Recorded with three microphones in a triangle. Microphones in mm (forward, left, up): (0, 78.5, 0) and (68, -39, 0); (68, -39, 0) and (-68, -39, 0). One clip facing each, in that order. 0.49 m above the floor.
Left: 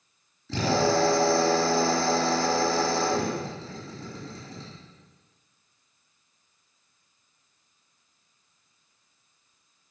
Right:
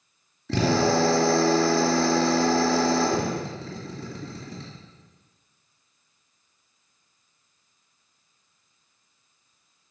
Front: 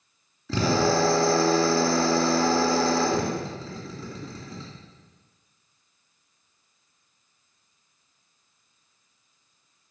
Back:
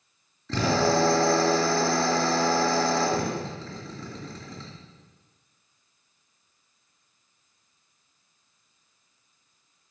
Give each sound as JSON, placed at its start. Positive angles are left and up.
{"t": 0.5, "sound": "a drill", "azimuth_deg": -80, "distance_m": 2.5}